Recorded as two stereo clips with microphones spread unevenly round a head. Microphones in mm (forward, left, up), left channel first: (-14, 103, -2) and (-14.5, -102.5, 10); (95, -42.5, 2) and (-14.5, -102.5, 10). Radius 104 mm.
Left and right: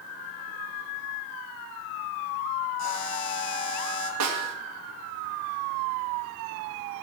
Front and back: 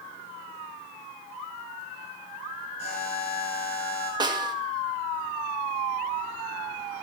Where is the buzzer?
90° left, 3.5 m.